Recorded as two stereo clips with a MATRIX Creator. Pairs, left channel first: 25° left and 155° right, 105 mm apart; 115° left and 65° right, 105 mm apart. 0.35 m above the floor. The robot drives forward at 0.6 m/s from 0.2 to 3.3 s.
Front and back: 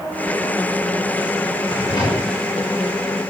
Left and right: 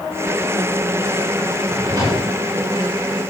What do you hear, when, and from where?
1.6 s a drawer: 20° right, 8.5 m